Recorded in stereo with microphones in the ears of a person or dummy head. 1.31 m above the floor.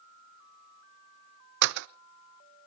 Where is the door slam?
60° right (ahead or behind), 0.6 m.